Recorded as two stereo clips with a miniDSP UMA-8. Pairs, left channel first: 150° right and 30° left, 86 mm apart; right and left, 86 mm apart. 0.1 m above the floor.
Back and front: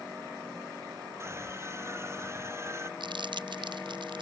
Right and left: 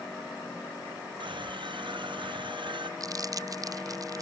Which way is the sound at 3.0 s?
45° left.